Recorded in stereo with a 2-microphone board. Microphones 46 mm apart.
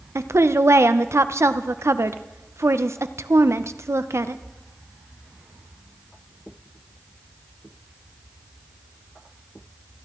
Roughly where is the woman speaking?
Right.